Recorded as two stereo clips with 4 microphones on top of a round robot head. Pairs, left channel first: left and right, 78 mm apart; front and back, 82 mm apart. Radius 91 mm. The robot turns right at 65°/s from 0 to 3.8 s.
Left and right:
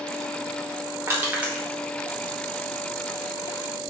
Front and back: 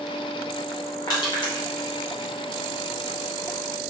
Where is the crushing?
40° right, 1.5 m; by 1.6 s 5° right, 1.5 m.